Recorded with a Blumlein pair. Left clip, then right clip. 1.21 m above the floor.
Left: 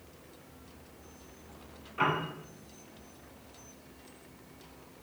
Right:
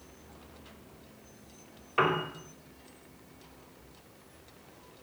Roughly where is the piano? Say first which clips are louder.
Right 2 dB; ahead right.